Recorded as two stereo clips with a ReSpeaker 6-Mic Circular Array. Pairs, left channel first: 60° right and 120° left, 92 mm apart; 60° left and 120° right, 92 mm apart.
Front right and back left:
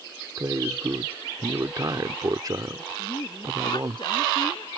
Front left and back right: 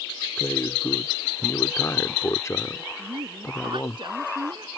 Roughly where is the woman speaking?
Right.